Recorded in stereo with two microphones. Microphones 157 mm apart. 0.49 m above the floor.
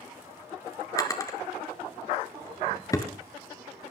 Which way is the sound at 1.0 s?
20° left (ahead or behind).